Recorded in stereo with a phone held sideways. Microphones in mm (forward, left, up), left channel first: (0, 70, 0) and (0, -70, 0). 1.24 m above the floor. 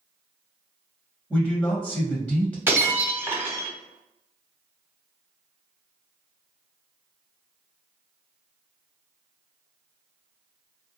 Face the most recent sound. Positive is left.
turn(degrees=-15)  # may be behind; listen again after turning